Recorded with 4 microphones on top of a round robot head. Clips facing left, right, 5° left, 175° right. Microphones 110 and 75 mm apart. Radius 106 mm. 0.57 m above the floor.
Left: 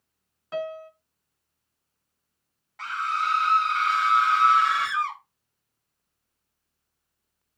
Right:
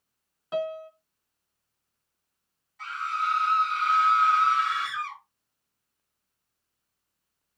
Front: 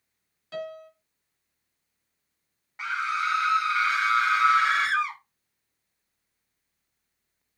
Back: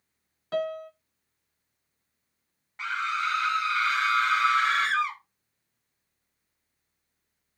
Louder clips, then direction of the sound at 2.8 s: Left 2 dB, front 1 dB; 85° left.